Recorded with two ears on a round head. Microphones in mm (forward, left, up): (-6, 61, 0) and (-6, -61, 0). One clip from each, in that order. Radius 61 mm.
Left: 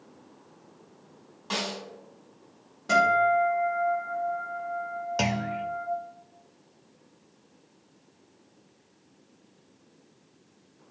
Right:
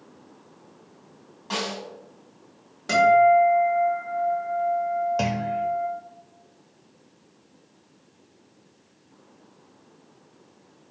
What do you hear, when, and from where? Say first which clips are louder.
1.5 s a snare drum: right 2 dB; 15° left (ahead or behind), 2.5 m
2.9 s a guitar: right 5 dB; 35° right (ahead or behind), 3.5 m
5.2 s a clunk: right 3 dB; 40° left (ahead or behind), 0.5 m